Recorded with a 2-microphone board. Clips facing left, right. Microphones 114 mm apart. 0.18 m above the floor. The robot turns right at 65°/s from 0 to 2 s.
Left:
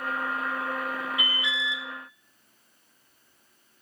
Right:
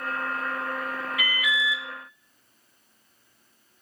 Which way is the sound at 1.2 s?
55° left.